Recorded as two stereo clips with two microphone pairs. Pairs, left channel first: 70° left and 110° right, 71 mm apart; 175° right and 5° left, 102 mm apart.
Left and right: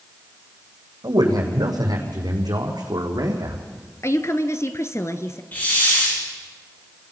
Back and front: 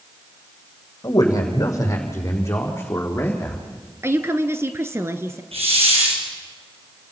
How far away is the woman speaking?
About 1.5 m.